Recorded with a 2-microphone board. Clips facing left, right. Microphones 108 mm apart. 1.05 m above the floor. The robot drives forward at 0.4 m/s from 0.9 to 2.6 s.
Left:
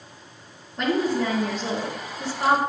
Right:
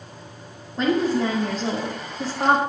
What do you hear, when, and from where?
0.8 s a woman speaking: 30° right (ahead or behind), 1.8 m; by 2.6 s 50° right (ahead or behind), 1.3 m